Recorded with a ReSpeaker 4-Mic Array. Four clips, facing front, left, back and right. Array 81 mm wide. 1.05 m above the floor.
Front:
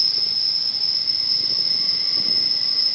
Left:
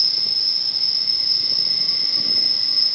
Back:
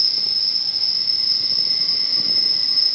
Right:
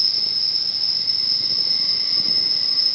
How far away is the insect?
About 1.6 m.